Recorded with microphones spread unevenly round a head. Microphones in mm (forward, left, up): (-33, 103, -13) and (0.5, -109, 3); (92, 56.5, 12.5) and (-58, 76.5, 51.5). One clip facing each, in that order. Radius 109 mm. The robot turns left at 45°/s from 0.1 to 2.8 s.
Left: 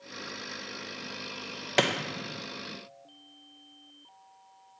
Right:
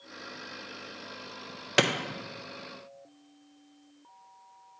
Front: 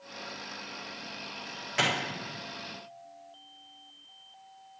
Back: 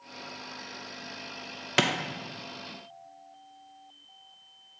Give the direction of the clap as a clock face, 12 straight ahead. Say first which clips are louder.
Right 1 dB, back 4 dB; 5 o'clock.